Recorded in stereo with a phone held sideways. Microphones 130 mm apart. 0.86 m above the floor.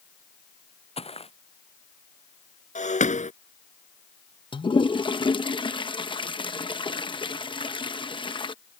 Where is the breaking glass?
65° left (ahead or behind).